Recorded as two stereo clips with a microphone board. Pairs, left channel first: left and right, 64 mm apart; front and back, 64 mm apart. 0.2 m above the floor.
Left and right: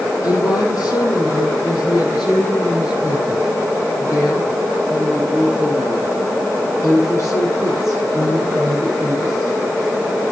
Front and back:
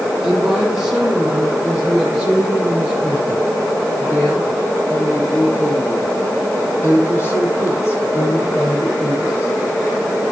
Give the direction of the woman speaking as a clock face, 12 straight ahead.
9 o'clock.